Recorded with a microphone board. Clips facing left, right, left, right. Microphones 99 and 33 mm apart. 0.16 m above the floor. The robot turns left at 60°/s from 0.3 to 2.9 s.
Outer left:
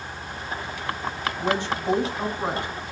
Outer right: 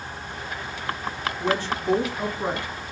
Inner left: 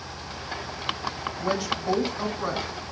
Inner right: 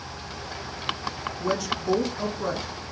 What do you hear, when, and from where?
1.4 s a woman speaking: 15° left (ahead or behind), 1.0 m; by 2.7 s 20° left (ahead or behind), 1.0 m